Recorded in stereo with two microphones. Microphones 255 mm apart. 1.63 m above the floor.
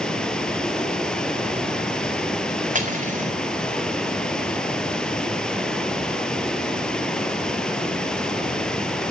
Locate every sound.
0.0 s running water: 5° left (ahead or behind), 2.5 m
2.8 s cutlery clinking: 30° right (ahead or behind), 4 m